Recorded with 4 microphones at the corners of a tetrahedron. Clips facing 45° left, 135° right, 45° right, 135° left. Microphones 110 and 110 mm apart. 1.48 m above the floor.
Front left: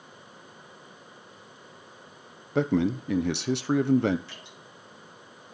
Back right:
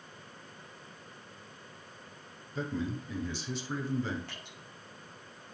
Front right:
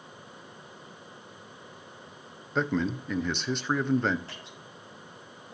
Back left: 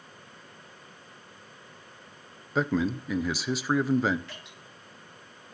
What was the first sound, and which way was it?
A man speaking, 50° left.